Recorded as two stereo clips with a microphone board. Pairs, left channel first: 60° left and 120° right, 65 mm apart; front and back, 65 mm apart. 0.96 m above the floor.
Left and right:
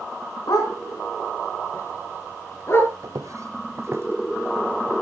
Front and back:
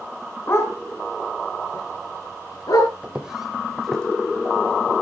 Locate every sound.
0.5 s a dog barking: 45° left, 3.5 m; by 2.9 s 10° left, 5 m
3.0 s footsteps: 110° right, 1.7 m; by 4.9 s 60° right, 2.5 m